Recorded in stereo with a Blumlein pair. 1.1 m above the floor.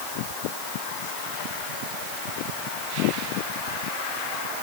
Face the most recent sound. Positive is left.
No sound to turn to.